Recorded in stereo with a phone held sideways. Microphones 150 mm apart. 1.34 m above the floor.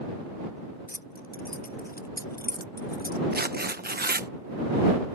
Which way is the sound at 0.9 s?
70° left (ahead or behind).